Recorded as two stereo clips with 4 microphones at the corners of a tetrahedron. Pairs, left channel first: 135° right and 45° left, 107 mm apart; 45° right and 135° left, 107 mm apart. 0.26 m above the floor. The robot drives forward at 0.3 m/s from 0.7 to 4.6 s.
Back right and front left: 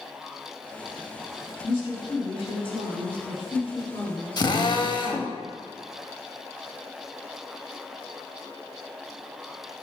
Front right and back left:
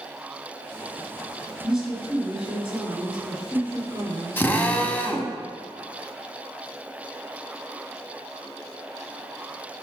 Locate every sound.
1.6 s a woman speaking: 140° right, 2 m; by 5.4 s 155° right, 2.5 m
4.4 s a drill: 105° right, 0.6 m; by 5.3 s 115° right, 0.6 m